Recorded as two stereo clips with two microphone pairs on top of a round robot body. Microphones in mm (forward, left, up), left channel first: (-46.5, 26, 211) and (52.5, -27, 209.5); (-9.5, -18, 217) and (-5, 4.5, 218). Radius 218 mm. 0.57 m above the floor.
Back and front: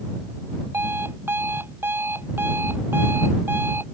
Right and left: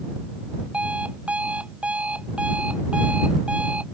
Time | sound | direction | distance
0.7 | an alarm clock | 45° left | ?